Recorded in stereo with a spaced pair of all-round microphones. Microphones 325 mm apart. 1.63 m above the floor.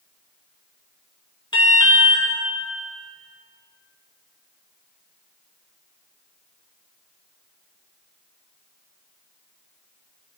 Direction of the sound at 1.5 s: 15° left (ahead or behind).